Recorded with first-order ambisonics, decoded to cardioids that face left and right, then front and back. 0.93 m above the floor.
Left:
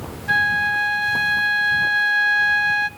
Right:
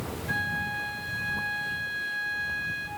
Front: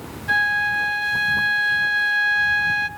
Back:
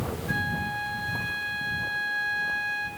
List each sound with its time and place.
0.3 s a flute: 45° left, 0.6 m